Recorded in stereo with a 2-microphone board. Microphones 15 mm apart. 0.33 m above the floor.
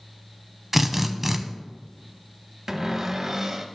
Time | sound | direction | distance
0.7 | a drill | 15° right (ahead or behind) | 0.8 m
2.7 | a cupboard door | 30° right (ahead or behind) | 1.0 m